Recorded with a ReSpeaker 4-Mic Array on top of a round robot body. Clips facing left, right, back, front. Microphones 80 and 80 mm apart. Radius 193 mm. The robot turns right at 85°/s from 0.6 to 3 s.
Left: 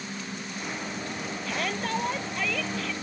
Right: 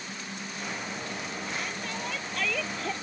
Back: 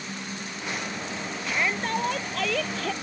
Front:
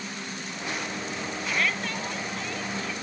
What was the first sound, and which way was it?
A shout, 90° left.